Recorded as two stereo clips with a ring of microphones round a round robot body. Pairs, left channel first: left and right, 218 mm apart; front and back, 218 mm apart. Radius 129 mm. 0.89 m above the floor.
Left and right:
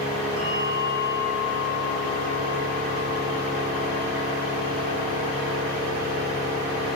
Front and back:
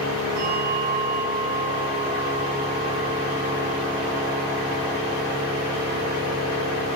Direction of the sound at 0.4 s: 140° left.